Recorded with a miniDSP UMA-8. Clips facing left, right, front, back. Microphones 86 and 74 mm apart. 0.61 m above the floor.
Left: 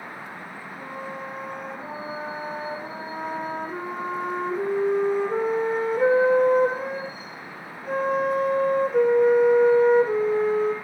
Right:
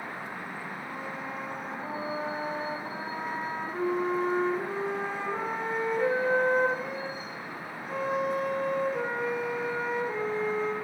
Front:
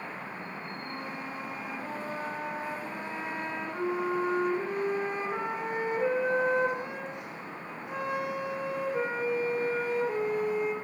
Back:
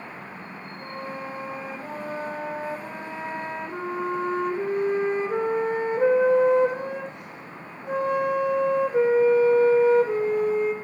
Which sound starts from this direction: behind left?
A flute, at 0.8 s.